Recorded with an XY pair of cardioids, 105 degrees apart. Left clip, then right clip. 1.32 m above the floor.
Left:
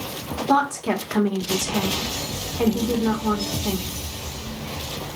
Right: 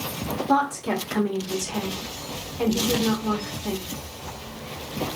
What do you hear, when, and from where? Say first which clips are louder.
0.5 s a woman speaking: left 3 dB; 30° left, 1.5 m